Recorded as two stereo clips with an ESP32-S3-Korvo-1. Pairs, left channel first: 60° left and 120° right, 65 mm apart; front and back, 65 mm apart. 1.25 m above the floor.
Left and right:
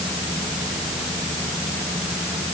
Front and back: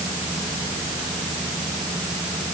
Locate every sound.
Only background noise.